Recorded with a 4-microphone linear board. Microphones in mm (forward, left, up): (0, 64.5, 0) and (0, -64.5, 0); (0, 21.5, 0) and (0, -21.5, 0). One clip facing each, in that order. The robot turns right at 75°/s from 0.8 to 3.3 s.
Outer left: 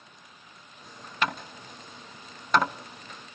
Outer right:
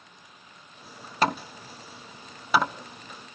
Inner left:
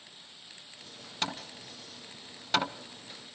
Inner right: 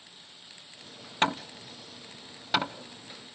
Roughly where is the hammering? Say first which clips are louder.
Outer right 5 dB, inner right 8 dB; right.